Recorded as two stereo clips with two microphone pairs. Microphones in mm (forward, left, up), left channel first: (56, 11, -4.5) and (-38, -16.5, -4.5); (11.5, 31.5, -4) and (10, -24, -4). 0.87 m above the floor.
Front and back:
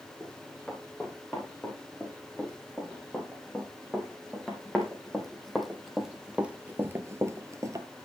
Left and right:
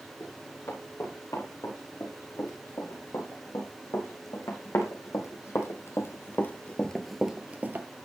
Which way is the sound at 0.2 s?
95° left.